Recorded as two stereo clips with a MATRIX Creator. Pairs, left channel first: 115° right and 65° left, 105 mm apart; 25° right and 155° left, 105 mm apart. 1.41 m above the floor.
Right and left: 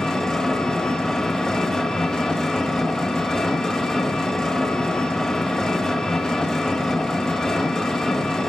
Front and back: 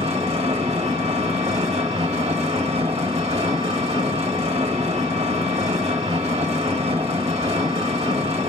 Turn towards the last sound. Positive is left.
turn(degrees=165)